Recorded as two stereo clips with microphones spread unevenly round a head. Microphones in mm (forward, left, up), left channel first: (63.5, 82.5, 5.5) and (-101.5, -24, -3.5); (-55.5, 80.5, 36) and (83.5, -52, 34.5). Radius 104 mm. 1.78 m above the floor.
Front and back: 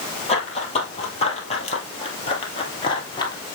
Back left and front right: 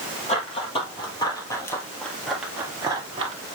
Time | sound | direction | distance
0.3 | running footsteps | 85° left | 3 m